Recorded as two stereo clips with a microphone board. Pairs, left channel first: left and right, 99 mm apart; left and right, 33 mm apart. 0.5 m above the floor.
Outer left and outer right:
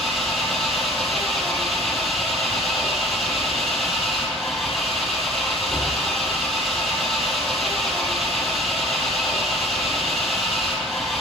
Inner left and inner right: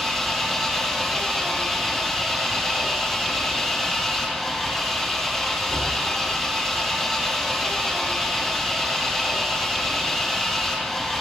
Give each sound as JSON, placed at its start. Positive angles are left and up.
{"t": 0.0, "sound": "an engine running", "side_deg": 0, "distance_m": 4.5}